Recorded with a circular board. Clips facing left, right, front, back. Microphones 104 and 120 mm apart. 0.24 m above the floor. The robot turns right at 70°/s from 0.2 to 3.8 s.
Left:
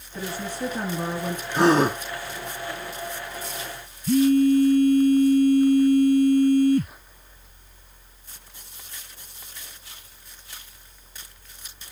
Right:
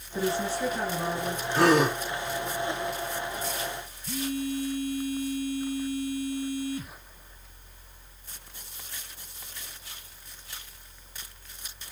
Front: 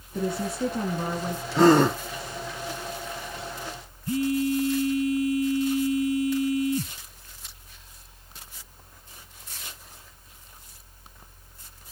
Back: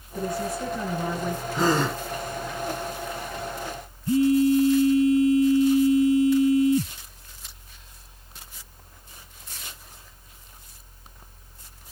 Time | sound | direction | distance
0.1 | a woman speaking | 10° right | 3.5 m
1.5 | a gasp | 15° left | 3.5 m
4.1 | a phone buzzing | 120° left | 0.9 m